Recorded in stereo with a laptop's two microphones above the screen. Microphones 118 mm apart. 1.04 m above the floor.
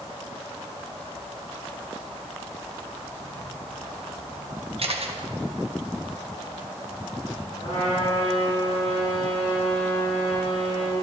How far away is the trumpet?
About 4 m.